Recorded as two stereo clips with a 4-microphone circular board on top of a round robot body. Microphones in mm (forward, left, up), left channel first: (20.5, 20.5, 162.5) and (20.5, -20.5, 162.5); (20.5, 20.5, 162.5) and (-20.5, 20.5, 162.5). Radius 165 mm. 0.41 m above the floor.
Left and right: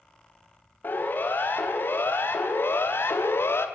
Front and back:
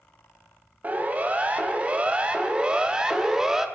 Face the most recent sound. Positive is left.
turn(degrees=100)